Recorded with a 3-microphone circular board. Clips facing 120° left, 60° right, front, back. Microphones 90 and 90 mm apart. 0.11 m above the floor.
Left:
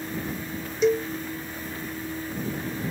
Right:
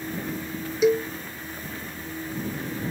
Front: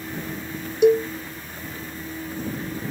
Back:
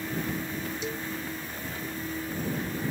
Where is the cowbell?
25° left.